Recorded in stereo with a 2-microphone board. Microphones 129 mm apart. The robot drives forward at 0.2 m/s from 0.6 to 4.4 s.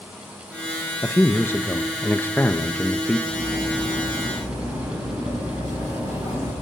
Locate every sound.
1.0 s a man speaking: 15° left (ahead or behind), 0.6 m
3.3 s cutlery clinking: 30° right (ahead or behind), 6.5 m